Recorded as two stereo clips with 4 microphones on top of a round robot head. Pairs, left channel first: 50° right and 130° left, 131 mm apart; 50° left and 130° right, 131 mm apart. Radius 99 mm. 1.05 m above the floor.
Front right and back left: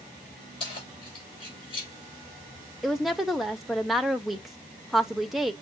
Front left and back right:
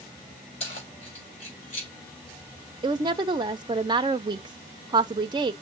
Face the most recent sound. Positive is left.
turn(degrees=-140)